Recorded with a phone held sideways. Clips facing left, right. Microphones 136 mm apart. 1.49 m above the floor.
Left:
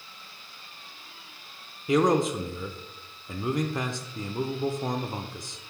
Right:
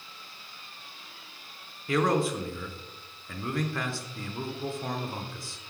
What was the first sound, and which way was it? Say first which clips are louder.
A man speaking: left 3 dB; 20° left (ahead or behind).